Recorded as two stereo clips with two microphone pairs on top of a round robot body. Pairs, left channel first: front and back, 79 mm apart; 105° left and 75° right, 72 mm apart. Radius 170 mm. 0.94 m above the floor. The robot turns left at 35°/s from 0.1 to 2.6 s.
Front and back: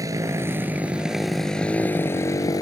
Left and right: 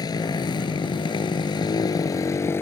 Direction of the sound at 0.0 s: 135° left.